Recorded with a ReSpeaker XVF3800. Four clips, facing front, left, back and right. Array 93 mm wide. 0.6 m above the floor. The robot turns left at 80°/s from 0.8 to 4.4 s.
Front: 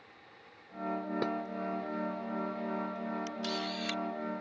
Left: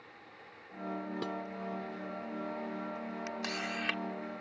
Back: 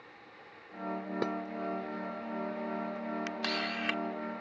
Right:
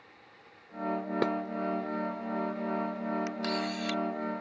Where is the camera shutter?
175° right; by 4.0 s 125° left.